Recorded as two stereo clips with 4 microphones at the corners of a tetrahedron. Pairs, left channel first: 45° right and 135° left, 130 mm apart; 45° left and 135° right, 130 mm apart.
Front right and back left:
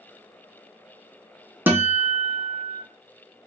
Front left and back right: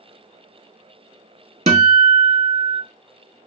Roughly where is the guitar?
Behind right.